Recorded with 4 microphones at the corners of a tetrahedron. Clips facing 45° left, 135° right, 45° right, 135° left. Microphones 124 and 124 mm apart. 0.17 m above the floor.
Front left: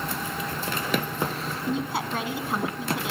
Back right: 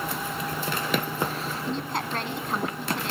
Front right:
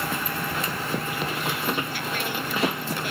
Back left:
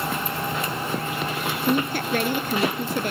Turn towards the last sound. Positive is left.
turn(degrees=130)